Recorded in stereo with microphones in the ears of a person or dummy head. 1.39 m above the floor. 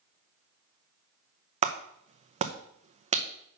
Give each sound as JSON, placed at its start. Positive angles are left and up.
{"t": 1.6, "sound": "a clap", "side_deg": -40, "distance_m": 0.6}